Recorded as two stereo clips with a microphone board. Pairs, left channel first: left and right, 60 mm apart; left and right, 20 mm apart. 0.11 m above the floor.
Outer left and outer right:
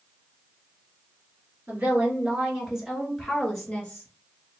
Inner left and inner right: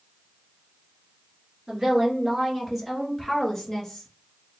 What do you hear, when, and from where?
1.7 s a woman speaking: 30° right (ahead or behind), 1.9 m; by 4.1 s 20° left (ahead or behind), 1.8 m